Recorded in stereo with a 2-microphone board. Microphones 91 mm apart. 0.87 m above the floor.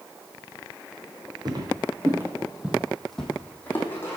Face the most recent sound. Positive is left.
turn(degrees=30)  # may be behind; listen again after turning